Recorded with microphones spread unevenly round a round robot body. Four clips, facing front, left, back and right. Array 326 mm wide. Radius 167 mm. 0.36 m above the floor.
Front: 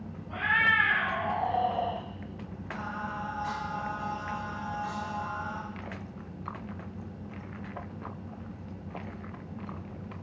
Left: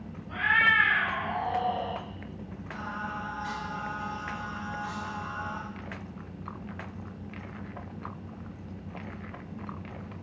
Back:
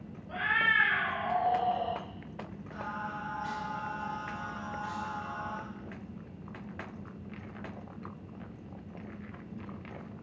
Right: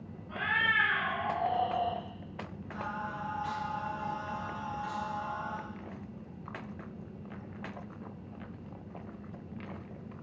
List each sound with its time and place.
0.3 s a cat meowing: 175° right, 1.8 m; by 2.0 s 140° right, 2.0 m
2.7 s singing: 50° right, 2.5 m